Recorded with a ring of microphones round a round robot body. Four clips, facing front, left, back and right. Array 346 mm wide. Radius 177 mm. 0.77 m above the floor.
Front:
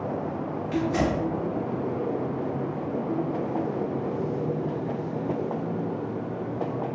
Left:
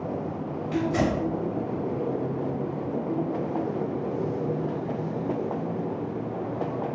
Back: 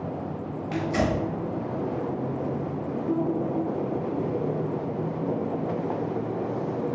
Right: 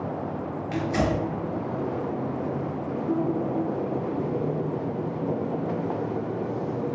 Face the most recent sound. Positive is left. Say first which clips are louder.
# left 1 dB, even
turn(degrees=-125)